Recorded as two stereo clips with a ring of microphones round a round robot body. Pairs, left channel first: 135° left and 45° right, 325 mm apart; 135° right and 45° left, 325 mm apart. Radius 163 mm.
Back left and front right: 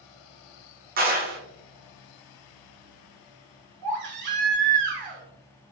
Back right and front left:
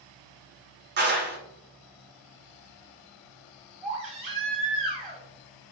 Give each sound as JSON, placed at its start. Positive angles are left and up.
{"t": 1.0, "sound": "a clap", "azimuth_deg": 5, "distance_m": 0.9}
{"t": 3.8, "sound": "a baby crying", "azimuth_deg": -25, "distance_m": 1.9}